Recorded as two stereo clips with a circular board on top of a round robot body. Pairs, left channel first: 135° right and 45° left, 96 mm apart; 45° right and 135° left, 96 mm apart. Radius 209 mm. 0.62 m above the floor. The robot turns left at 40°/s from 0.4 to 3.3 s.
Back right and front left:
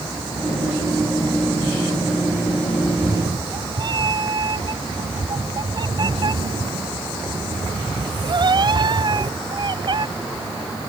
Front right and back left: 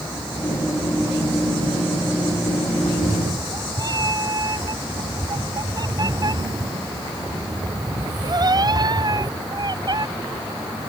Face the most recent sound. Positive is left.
turn(degrees=90)